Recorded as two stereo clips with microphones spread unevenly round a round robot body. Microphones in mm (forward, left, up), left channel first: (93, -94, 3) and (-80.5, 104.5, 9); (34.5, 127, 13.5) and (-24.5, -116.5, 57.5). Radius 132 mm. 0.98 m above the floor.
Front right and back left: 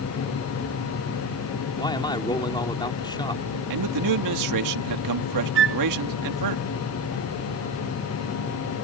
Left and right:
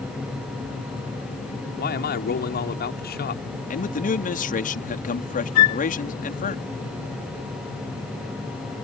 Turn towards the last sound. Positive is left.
turn(degrees=85)